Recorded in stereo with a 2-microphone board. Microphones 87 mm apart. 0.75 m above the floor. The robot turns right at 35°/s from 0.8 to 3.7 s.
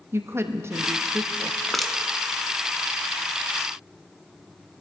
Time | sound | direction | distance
0.1 | a woman speaking | 30° right (ahead or behind) | 0.8 m
1.7 | crushing | 5° left (ahead or behind) | 0.9 m